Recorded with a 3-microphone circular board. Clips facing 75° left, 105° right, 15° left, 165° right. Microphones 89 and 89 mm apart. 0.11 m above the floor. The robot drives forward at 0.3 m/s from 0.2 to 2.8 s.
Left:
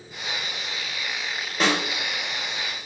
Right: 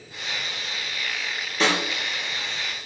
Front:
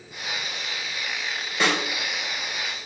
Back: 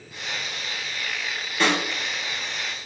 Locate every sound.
1.6 s a snare drum: 75° left, 1.2 m; by 1.8 s 80° left, 1.2 m